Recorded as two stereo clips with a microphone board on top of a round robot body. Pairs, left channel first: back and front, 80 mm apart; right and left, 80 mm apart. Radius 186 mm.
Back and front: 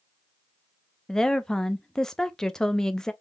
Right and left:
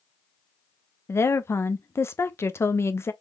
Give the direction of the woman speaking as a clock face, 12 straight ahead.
3 o'clock.